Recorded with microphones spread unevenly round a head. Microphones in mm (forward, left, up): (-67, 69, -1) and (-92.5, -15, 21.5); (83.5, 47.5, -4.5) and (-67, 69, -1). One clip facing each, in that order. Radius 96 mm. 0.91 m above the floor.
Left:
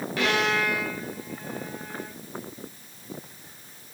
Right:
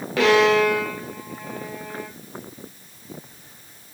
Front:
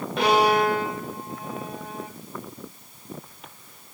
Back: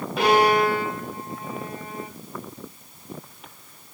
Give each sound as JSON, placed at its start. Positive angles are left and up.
{"t": 0.2, "sound": "a violin", "azimuth_deg": -100, "distance_m": 1.9}